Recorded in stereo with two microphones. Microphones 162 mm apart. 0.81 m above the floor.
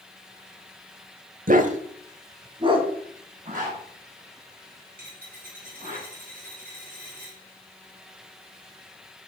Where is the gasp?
I don't hear a gasp.